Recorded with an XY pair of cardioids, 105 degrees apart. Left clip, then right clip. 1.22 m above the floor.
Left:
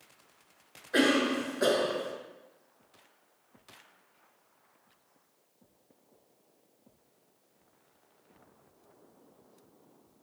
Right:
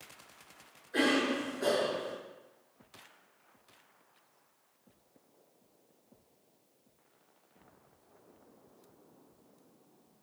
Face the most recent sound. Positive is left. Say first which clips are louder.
# left 3 dB
turn(degrees=70)